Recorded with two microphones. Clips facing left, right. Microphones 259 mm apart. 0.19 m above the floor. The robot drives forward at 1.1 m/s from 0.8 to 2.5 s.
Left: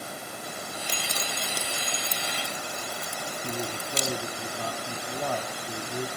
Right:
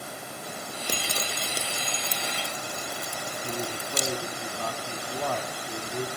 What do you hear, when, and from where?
0.9 s dripping: 55° right (ahead or behind), 0.7 m; by 4.2 s 15° right (ahead or behind), 2 m
3.4 s a man speaking: 15° left (ahead or behind), 1.6 m